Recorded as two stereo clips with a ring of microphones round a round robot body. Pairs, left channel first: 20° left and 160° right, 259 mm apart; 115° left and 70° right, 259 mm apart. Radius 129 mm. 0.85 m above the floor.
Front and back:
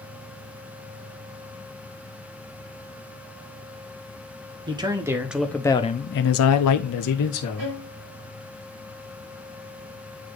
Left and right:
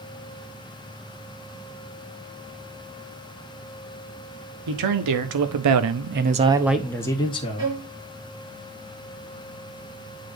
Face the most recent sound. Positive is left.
turn(degrees=-145)